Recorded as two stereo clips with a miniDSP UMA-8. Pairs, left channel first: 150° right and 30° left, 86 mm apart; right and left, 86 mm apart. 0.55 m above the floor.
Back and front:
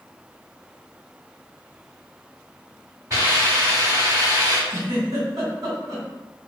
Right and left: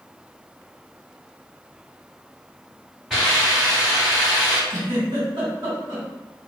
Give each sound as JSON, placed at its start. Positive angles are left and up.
{"t": 3.1, "sound": "a hiss", "azimuth_deg": 0, "distance_m": 1.8}
{"t": 4.7, "sound": "a giggle", "azimuth_deg": 60, "distance_m": 1.5}